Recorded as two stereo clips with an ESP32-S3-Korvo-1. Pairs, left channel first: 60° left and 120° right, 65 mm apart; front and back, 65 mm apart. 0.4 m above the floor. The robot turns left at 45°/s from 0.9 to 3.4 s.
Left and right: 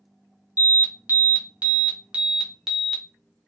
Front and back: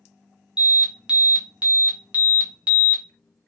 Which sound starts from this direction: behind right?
An alarm, at 0.6 s.